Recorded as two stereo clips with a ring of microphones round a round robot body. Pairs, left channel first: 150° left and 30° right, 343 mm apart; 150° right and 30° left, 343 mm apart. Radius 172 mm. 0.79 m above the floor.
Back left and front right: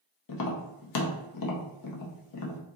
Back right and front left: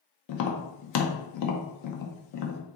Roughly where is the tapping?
Behind.